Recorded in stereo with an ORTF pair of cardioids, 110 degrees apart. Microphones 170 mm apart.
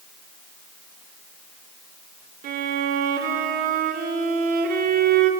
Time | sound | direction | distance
2.4 | a violin | 65° right | 3 m